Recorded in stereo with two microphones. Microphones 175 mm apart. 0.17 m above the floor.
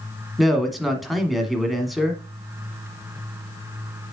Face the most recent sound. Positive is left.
turn(degrees=0)  # may be behind; listen again after turning